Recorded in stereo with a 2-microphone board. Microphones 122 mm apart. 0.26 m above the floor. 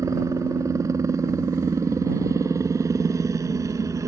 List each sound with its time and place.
0.0 s a helicopter: 25° right (ahead or behind)